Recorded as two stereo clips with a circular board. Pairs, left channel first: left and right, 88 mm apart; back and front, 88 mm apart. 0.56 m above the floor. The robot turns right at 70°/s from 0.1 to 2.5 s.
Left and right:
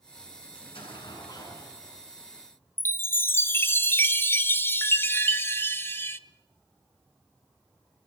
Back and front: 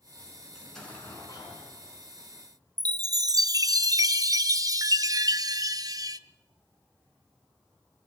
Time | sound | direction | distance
0.6 | an explosion | 85° left | 7 m
2.8 | a chime | 30° left | 0.7 m